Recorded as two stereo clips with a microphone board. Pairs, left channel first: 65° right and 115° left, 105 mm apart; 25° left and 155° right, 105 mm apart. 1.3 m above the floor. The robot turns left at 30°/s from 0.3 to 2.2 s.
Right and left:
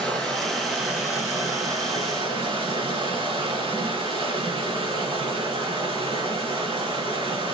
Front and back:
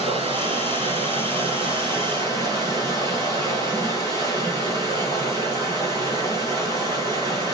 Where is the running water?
155° right, 8 m; by 7.5 s 150° left, 8 m.